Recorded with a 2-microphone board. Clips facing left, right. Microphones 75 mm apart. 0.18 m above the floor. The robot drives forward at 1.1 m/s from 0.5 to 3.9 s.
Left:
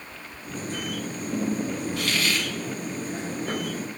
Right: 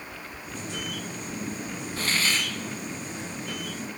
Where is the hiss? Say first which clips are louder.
Right 2 dB; 35° right (ahead or behind), 1.4 m; by 2.5 s 30° right (ahead or behind), 1.6 m.